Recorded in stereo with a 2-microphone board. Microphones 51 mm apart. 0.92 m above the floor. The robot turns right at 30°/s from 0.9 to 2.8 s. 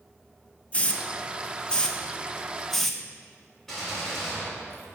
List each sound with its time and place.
0.7 s a hiss: 25° left (ahead or behind), 0.6 m; by 3.0 s 5° left (ahead or behind), 0.6 m
3.7 s a gunshot: 5° left (ahead or behind), 3 m